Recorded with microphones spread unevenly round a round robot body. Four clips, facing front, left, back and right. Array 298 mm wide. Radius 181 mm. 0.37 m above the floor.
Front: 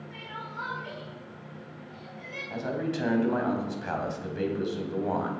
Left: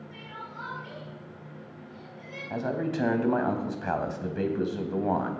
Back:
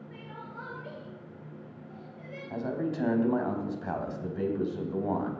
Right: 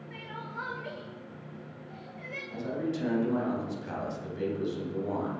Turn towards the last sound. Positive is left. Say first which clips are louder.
# left 3 dB, front 1 dB
turn(degrees=80)